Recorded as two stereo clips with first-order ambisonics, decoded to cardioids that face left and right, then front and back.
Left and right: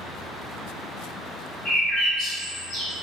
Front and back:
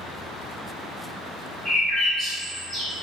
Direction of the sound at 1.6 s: 65° left.